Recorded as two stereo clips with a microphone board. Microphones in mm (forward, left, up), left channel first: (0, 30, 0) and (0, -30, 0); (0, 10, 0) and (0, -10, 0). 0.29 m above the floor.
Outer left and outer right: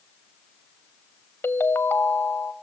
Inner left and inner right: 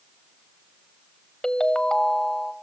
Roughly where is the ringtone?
Left.